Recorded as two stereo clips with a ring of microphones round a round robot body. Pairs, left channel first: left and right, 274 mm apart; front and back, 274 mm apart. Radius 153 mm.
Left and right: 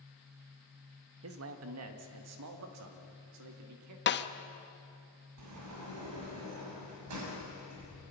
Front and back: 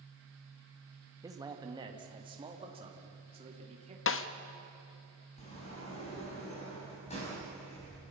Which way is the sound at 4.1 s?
40° left.